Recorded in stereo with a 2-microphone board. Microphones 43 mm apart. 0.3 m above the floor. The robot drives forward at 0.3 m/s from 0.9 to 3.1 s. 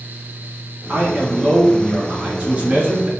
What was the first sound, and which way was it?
A man speaking, 30° right (ahead or behind).